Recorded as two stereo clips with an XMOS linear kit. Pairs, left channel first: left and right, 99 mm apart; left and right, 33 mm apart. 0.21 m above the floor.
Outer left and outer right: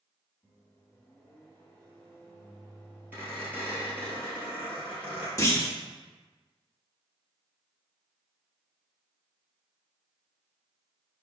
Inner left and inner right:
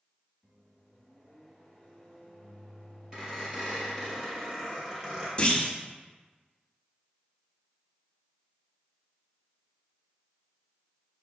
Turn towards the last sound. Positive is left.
turn(degrees=30)  # may be behind; listen again after turning